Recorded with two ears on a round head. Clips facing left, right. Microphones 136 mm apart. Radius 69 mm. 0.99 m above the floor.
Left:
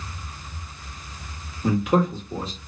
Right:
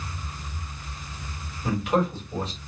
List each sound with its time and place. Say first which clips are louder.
1.6 s a man speaking: left 3 dB; 75° left (ahead or behind), 1.5 m